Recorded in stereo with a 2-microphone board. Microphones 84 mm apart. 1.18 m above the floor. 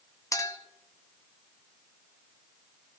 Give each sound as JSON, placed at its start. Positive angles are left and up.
{"t": 0.3, "sound": "a clink", "side_deg": 40, "distance_m": 0.8}